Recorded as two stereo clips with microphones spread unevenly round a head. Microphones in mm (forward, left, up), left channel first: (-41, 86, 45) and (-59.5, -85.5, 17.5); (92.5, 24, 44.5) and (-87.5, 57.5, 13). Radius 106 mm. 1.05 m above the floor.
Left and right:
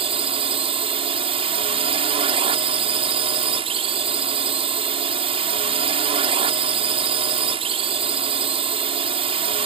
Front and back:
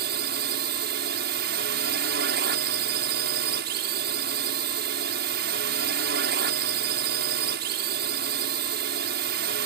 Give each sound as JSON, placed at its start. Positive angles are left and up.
{"t": 0.0, "sound": "a drone", "azimuth_deg": -155}